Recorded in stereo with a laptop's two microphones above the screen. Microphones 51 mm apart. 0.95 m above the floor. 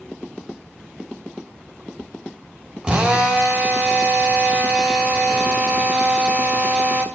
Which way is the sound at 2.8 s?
20° right (ahead or behind).